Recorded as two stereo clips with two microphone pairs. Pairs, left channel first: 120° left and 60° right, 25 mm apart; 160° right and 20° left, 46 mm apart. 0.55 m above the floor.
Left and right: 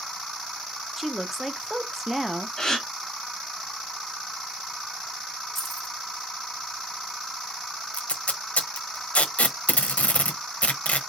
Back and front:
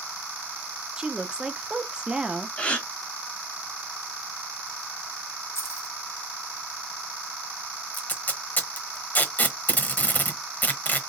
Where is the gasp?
165° left, 1.2 m.